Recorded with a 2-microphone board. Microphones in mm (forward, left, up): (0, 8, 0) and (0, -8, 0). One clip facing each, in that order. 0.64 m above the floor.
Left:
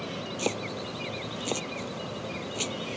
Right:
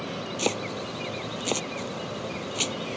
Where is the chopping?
25° right (ahead or behind).